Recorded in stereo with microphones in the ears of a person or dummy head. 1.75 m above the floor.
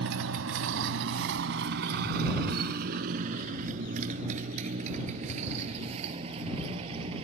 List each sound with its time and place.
0.0 s a motorcycle: 70° right (ahead or behind); by 7.2 s 25° right (ahead or behind)